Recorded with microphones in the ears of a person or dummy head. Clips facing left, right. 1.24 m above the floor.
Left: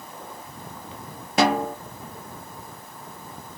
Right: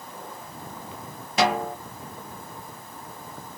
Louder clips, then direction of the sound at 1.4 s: Left 3 dB; 45° left (ahead or behind).